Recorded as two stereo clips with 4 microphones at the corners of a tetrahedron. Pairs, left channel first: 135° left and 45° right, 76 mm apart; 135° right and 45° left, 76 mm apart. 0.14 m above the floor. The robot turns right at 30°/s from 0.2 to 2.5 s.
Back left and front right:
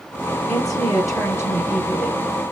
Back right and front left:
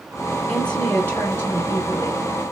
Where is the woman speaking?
150° left, 2 m; by 2.3 s 155° right, 2 m.